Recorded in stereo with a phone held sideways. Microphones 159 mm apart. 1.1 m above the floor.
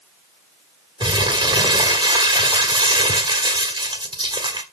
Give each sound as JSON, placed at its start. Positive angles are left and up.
{"t": 1.0, "sound": "crumpling", "side_deg": -30, "distance_m": 1.5}